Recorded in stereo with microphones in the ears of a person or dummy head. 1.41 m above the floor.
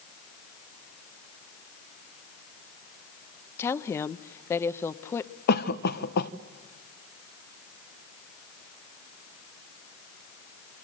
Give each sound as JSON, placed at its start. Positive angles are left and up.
{"t": 3.6, "sound": "a woman speaking", "side_deg": 15, "distance_m": 0.8}
{"t": 5.5, "sound": "a cough", "side_deg": 60, "distance_m": 0.9}